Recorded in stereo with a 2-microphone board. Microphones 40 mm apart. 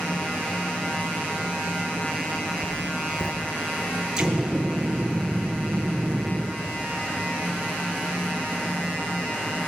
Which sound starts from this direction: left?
Writing, at 2.6 s.